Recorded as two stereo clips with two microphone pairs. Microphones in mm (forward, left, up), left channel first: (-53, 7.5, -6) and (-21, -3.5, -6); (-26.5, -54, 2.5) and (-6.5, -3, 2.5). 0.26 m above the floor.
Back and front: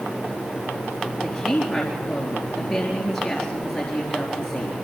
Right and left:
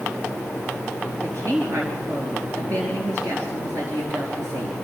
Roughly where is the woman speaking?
Left.